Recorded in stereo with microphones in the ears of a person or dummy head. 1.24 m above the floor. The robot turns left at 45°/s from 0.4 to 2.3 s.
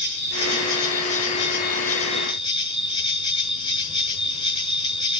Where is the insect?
110° left, 6.5 m; by 5.2 s 25° left, 6.5 m.